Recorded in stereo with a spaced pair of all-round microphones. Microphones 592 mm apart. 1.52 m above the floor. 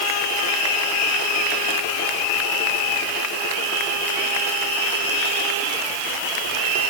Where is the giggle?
No giggle in this recording.